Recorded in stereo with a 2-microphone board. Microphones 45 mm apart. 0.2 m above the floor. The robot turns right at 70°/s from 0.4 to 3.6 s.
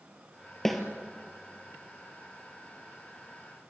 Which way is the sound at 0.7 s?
10° left (ahead or behind).